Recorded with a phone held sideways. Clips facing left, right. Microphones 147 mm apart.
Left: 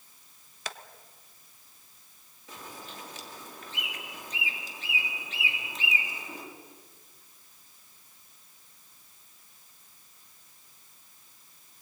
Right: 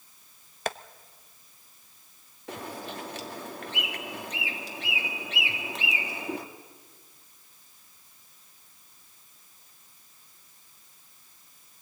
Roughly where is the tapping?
Right.